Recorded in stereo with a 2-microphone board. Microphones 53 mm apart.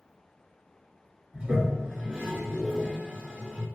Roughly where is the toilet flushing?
Centre.